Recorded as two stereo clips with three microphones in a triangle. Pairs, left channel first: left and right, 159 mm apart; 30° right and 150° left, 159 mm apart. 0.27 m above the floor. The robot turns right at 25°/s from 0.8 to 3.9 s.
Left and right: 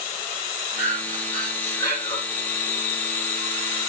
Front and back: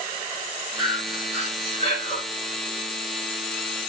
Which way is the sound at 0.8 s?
10° right.